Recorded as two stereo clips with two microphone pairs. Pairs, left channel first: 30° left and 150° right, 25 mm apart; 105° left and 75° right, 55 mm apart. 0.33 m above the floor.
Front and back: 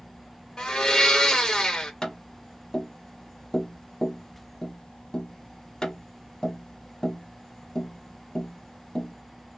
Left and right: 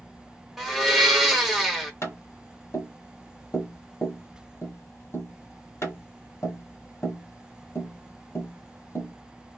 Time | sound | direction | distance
0.6 | a blender | 10° left | 0.9 m
2.0 | tapping | 90° left | 1.1 m